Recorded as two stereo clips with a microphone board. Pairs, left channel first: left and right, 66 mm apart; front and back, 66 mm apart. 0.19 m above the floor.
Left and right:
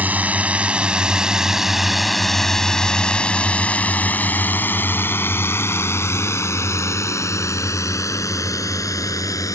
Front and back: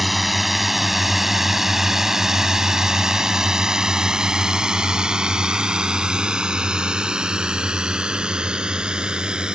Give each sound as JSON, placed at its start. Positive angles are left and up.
{"t": 0.0, "sound": "a drone", "azimuth_deg": -90}